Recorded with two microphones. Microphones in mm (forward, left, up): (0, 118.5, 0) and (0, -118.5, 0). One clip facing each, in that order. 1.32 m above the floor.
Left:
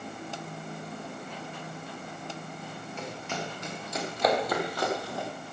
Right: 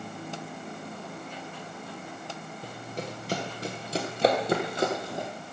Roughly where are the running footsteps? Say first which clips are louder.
Right 4 dB; right.